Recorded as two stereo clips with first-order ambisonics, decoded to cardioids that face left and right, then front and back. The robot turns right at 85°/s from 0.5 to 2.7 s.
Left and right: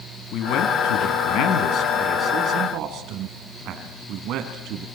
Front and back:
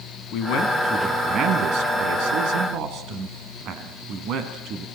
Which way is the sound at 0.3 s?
40° left.